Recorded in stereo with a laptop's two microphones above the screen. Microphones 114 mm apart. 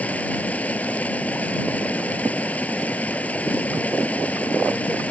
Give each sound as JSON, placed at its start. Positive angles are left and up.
{"t": 0.0, "sound": "running water", "side_deg": 15}